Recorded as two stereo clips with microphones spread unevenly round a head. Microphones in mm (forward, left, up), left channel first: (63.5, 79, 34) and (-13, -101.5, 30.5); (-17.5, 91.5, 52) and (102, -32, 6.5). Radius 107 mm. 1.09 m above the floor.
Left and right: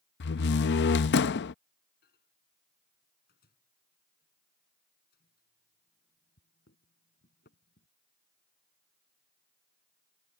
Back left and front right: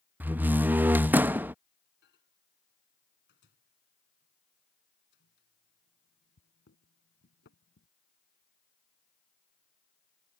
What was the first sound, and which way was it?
A door slam, 40° left.